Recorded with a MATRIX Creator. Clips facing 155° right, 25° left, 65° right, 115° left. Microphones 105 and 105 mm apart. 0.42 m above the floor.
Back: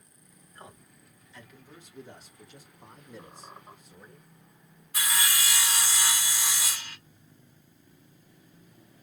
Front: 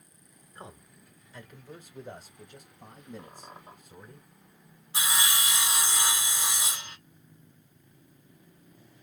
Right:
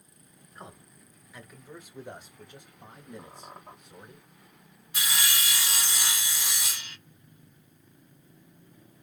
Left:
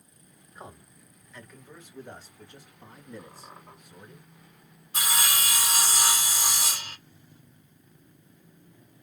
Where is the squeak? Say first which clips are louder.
Even, right 1 dB; 30° right, 1.4 m.